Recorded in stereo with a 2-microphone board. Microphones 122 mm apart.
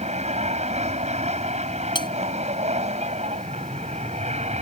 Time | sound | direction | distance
0.0 | an aircraft | 65° right (ahead or behind) | ?
1.9 | cutlery clinking | 40° left (ahead or behind) | ?